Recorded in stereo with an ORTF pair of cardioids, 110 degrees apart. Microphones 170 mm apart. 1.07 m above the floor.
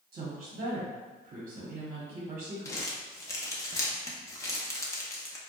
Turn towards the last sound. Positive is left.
turn(degrees=15)